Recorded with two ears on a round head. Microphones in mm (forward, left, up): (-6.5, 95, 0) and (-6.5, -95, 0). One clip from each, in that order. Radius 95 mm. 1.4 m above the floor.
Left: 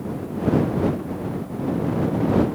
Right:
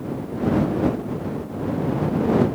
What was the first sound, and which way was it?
Only background noise.